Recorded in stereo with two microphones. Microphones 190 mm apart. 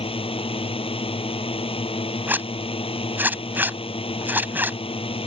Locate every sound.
0.0 s a drone: 30° left (ahead or behind)
2.3 s a zipper: 10° right (ahead or behind)